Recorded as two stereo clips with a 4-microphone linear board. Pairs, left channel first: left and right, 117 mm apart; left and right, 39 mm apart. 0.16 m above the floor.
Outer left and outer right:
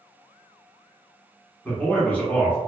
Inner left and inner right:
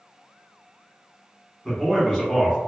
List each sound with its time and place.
1.6 s a man speaking: 15° left (ahead or behind), 1.0 m